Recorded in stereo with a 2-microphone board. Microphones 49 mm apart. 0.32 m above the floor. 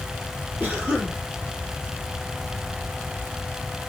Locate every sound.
0.6 s a cough: 45° right (ahead or behind), 6.5 m